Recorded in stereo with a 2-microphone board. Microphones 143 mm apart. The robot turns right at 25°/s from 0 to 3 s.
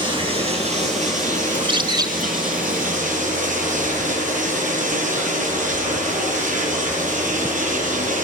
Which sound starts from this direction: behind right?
Running water, at 0.0 s.